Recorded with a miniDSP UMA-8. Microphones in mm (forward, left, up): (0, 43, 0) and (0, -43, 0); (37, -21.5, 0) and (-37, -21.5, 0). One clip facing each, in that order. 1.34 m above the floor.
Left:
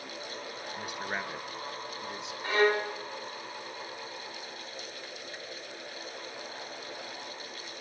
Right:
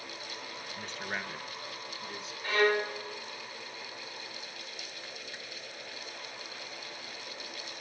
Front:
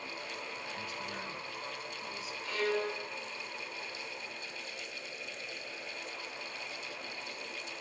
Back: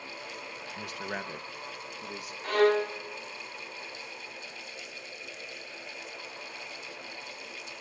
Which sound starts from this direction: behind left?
A violin, at 2.4 s.